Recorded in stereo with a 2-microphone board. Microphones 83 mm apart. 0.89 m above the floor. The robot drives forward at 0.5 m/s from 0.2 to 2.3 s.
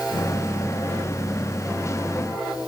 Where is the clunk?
No clunk in this recording.